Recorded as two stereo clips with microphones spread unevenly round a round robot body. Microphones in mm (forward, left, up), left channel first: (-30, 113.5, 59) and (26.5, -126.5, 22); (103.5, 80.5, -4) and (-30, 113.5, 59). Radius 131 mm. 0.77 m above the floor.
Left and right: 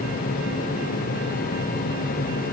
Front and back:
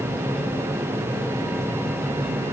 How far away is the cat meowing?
No cat meowing in this recording.